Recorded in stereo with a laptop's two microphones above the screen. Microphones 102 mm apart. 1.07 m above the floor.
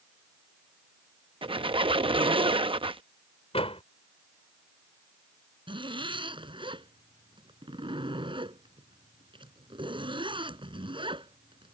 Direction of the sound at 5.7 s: 60° right (ahead or behind).